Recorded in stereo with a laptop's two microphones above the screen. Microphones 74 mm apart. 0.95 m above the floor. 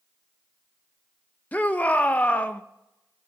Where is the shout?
20° left (ahead or behind), 0.6 m.